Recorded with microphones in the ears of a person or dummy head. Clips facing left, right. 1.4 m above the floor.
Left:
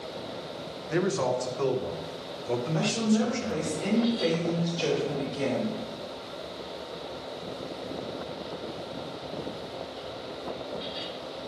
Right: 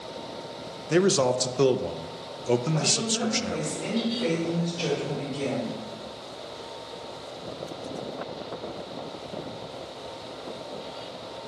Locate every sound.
0.9 s a man speaking: 45° right (ahead or behind), 0.6 m
2.7 s a woman speaking: 25° left (ahead or behind), 3 m